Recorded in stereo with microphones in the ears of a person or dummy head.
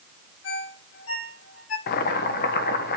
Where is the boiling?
55° left (ahead or behind), 1.2 m.